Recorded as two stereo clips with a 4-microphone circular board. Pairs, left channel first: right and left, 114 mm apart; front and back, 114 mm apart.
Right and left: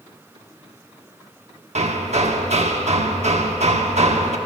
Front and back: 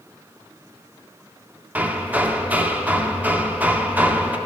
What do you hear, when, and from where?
1.8 s hammering: 105° left, 0.8 m